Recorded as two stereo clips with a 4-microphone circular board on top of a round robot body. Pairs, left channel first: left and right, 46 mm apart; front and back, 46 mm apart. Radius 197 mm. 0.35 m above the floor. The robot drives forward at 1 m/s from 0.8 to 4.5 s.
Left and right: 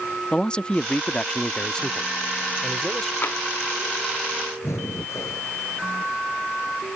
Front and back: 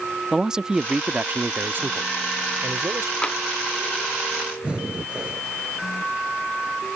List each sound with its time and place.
0.3 s a man speaking: 130° left; by 3.1 s 170° left
3.2 s tapping: 65° left; by 3.4 s 75° left
4.6 s breathing: 115° left